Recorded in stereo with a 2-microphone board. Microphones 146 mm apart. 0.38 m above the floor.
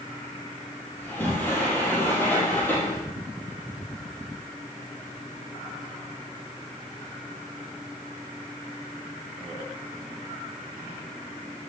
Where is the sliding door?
15° left (ahead or behind), 7 m.